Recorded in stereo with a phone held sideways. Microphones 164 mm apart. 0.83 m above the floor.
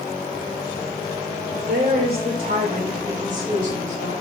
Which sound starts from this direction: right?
A woman speaking, at 1.7 s.